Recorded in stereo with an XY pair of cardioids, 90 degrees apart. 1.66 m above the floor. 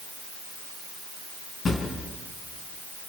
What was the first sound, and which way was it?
A drawer, 50° left.